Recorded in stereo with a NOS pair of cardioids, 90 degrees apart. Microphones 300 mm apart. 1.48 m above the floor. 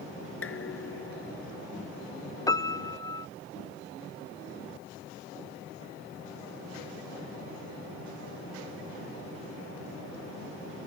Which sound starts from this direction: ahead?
A piano, at 2.5 s.